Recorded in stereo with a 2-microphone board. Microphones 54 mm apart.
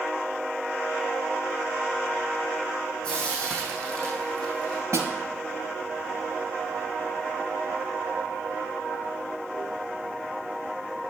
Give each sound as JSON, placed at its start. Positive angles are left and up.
{"t": 3.0, "sound": "frying", "side_deg": 15, "distance_m": 4.0}
{"t": 4.9, "sound": "a snare drum", "side_deg": -70, "distance_m": 1.4}